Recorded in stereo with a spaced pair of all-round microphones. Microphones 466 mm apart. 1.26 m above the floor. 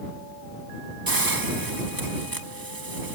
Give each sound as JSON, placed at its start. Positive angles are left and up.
{"t": 1.1, "sound": "a hiss", "side_deg": -45}